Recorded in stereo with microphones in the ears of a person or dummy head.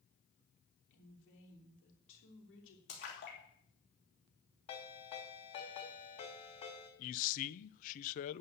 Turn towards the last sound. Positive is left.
turn(degrees=45)  # may be behind; listen again after turning